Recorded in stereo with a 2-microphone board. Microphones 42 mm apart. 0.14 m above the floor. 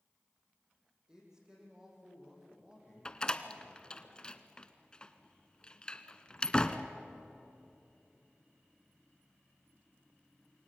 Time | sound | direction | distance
1.1 | a man speaking | 15° right (ahead or behind) | 8 m
3.0 | a door slam | 20° left (ahead or behind) | 1.0 m